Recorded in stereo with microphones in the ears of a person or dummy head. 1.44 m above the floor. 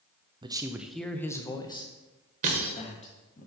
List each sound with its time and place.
0.4 s a man speaking: 25° right (ahead or behind), 0.6 m; by 3.4 s 40° left (ahead or behind), 2 m
2.4 s breaking glass: 40° right (ahead or behind), 1.6 m